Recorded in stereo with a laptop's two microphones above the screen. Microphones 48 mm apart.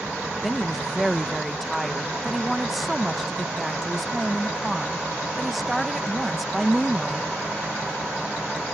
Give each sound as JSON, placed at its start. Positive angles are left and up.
{"t": 0.4, "sound": "a woman speaking", "side_deg": 0}